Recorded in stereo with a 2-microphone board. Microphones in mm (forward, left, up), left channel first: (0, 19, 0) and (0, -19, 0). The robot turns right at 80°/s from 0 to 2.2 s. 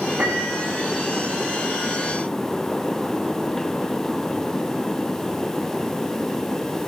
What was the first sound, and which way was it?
A piano, 85° right.